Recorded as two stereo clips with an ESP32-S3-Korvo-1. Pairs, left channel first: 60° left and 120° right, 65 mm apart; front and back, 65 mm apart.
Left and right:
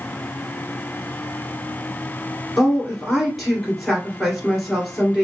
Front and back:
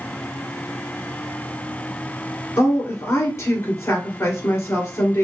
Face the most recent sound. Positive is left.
turn(degrees=-30)